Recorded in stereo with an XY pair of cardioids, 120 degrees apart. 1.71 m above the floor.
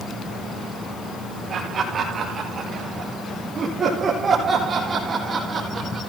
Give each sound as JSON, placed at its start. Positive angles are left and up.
{"t": 1.5, "sound": "laughter", "azimuth_deg": -40, "distance_m": 6.5}